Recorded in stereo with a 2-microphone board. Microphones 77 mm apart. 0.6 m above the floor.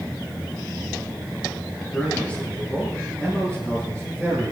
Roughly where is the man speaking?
Left.